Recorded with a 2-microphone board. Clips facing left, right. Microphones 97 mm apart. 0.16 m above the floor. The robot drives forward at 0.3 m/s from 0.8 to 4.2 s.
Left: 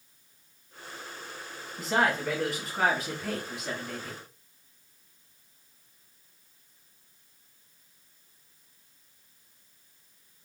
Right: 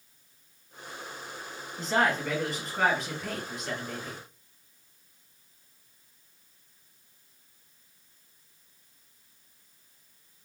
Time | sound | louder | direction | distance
1.8 | a man speaking | even | 5° left (ahead or behind) | 1.1 m